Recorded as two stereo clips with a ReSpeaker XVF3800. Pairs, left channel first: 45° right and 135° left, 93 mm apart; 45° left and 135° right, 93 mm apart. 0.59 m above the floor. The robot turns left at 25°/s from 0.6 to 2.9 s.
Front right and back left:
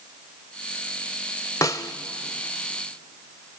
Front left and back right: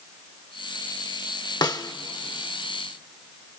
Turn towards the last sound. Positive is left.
turn(degrees=-25)